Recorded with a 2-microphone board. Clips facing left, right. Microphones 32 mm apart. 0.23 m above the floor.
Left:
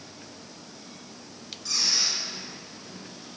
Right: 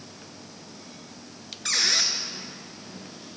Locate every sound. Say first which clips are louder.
1.6 s a squeak: right 3 dB; 75° right (ahead or behind), 1.3 m